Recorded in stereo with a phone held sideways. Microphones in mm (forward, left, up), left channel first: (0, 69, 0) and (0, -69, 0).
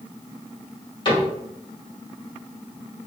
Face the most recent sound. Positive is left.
turn(degrees=35)  # may be behind; listen again after turning